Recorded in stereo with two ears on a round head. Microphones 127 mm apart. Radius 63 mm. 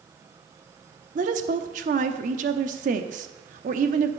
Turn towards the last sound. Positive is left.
turn(degrees=-60)  # may be behind; listen again after turning